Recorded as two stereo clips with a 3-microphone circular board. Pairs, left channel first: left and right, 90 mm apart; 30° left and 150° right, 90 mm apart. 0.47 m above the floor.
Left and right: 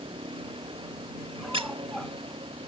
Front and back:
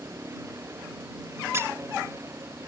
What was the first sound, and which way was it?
A vehicle, 90° right.